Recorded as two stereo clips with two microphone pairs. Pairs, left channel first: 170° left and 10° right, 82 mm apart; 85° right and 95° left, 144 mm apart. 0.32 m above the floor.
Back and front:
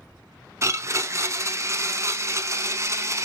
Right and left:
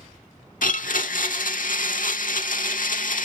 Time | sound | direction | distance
0.6 | a blender | 65° right | 0.5 m